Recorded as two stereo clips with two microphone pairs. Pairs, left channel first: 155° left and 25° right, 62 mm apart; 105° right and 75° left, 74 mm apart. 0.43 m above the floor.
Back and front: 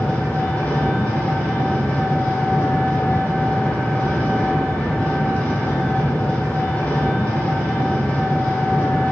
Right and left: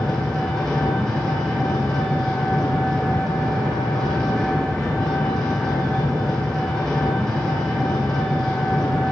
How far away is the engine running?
About 0.9 m.